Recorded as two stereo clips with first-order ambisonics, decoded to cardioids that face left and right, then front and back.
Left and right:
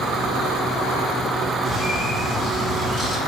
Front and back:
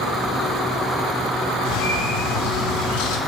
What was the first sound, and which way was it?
A bird, straight ahead.